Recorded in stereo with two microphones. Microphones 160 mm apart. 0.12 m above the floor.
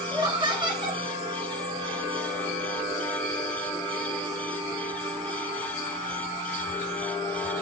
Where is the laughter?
30° right (ahead or behind), 1.4 m.